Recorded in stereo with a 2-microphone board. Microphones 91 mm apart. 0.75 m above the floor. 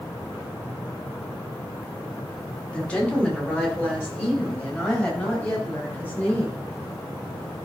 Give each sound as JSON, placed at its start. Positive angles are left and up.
{"t": 2.7, "sound": "a woman speaking", "side_deg": 10, "distance_m": 2.5}